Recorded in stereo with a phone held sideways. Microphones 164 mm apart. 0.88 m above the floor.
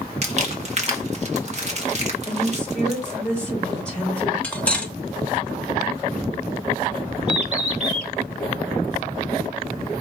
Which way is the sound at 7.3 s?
45° right (ahead or behind).